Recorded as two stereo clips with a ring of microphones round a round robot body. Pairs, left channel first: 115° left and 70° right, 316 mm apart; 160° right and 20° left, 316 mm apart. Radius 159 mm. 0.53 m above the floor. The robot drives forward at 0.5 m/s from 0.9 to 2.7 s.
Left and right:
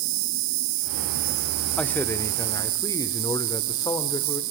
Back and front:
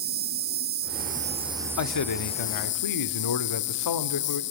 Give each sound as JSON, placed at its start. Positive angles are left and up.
{"t": 0.0, "sound": "an insect", "azimuth_deg": -40, "distance_m": 1.0}
{"t": 1.8, "sound": "a man speaking", "azimuth_deg": -160, "distance_m": 0.9}